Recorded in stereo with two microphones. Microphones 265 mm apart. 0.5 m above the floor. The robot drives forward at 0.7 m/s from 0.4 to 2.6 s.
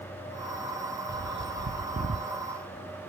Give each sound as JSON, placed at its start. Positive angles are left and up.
{"t": 1.1, "sound": "a bird", "side_deg": -40, "distance_m": 0.5}